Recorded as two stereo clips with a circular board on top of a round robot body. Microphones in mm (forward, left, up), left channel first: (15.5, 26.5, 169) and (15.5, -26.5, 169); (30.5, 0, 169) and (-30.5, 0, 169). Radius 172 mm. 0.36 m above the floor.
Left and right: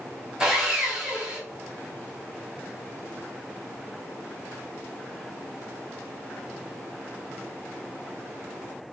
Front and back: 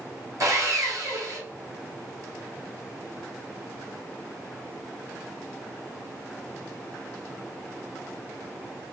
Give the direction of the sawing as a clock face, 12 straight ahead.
6 o'clock.